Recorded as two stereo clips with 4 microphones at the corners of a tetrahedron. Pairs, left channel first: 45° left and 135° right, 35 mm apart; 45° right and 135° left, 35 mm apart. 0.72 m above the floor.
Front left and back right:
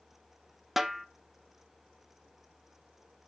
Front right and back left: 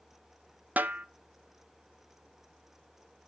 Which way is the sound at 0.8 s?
145° left.